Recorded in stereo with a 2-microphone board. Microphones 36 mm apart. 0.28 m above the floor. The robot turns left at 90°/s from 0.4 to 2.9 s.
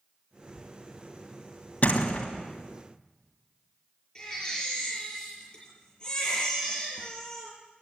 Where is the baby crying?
20° left (ahead or behind), 6 m.